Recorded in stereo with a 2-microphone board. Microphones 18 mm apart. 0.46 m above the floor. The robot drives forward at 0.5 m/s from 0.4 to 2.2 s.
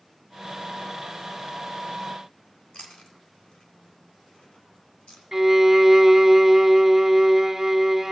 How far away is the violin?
About 0.7 m.